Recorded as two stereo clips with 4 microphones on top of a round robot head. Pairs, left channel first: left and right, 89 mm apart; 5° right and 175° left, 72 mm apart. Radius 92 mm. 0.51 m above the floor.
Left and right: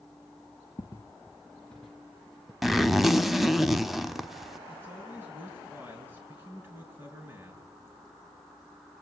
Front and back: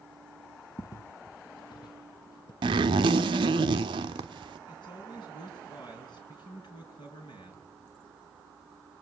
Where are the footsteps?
30° left, 0.7 m; by 2.5 s 5° right, 1.5 m.